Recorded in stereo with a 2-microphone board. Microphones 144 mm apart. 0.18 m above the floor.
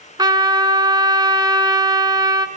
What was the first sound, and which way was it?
A trumpet, 30° right (ahead or behind).